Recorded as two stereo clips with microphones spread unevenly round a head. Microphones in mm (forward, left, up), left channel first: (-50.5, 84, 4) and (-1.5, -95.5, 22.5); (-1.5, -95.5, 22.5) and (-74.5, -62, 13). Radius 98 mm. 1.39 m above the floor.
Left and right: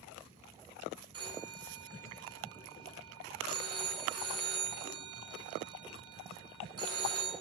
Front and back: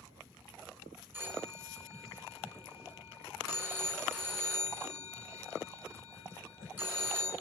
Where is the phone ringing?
140° right, 9 m.